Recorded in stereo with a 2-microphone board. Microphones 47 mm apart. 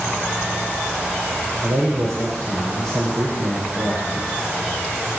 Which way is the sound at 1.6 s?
70° right (ahead or behind).